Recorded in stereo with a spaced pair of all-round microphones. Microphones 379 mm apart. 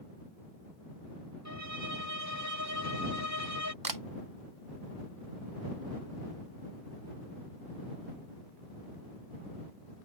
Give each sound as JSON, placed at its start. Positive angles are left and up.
{"t": 1.4, "sound": "a violin", "side_deg": -45}
{"t": 3.8, "sound": "a camera shutter", "side_deg": -60}